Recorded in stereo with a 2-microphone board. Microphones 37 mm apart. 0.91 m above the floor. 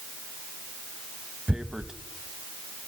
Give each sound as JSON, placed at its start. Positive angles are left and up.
{"t": 1.5, "sound": "tearing paper", "side_deg": -20, "distance_m": 0.8}